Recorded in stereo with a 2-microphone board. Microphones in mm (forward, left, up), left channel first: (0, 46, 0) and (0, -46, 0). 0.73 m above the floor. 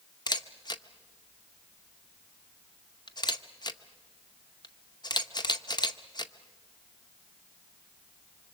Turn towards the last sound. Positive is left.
turn(degrees=50)  # may be behind; listen again after turning